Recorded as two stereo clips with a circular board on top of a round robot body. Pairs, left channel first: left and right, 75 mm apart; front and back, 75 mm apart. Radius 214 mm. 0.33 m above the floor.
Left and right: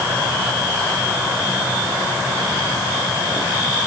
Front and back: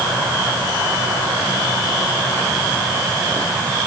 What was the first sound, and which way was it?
Only background noise.